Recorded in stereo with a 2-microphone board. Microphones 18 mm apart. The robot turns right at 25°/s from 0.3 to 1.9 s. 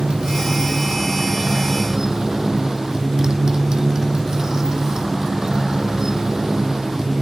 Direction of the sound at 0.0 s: 75° right.